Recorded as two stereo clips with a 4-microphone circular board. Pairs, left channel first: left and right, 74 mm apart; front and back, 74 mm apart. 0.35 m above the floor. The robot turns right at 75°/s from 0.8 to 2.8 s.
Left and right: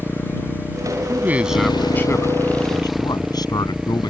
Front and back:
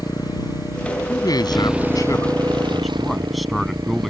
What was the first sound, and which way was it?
A motorcycle, 30° left.